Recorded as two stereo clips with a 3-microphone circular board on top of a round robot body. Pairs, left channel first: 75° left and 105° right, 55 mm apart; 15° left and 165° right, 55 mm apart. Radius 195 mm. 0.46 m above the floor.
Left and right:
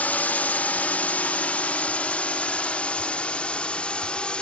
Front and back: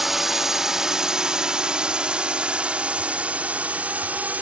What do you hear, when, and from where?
0.0 s a drone: 110° left; by 4.4 s 140° left